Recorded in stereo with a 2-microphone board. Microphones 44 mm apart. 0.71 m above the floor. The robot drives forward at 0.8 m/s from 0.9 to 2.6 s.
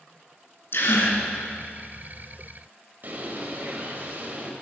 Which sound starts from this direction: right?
A bird, at 3.0 s.